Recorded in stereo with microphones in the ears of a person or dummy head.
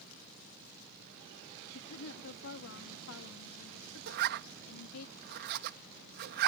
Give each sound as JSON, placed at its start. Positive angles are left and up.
{"t": 1.7, "sound": "a woman speaking", "side_deg": 85}
{"t": 4.1, "sound": "a zipper", "side_deg": -50}